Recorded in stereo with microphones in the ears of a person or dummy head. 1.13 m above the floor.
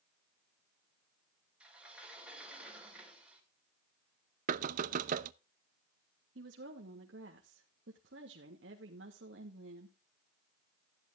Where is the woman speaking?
60° right (ahead or behind), 1.2 m.